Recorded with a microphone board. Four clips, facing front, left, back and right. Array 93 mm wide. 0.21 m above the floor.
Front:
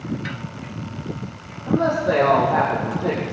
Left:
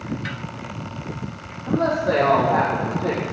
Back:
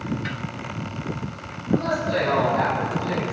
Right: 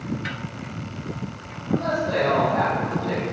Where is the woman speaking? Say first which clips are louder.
Left 3 dB, front 4 dB; 40° left, 9.5 m.